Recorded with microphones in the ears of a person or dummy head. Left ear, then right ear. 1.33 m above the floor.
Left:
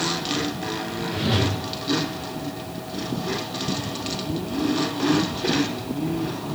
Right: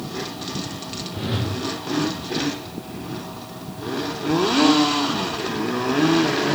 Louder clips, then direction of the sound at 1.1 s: Left 5 dB; 15° left (ahead or behind).